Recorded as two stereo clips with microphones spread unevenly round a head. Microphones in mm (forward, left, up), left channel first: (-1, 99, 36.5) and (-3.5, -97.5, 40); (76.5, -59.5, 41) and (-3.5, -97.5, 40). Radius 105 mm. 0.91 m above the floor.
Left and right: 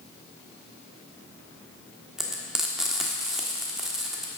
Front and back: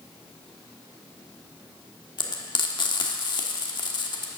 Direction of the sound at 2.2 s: 5° right.